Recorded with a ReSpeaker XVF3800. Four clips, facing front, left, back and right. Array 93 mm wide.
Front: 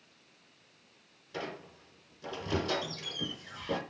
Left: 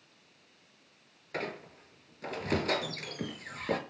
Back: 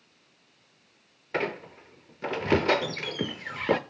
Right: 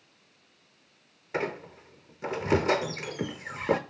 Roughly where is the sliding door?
No sliding door in this recording.